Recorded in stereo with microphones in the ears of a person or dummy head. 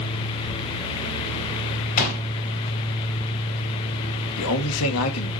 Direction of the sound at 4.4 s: 80° left.